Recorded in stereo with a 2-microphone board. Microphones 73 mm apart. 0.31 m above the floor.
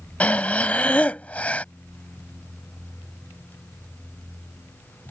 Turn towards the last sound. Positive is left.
turn(degrees=20)  # may be behind; listen again after turning